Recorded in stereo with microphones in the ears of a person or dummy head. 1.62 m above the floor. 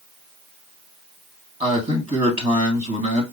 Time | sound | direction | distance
1.6 | a man speaking | 35° right (ahead or behind) | 2 m